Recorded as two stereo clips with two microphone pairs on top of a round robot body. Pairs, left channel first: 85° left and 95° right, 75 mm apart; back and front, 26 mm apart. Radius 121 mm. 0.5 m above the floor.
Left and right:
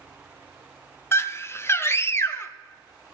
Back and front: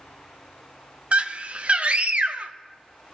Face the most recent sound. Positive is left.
turn(degrees=30)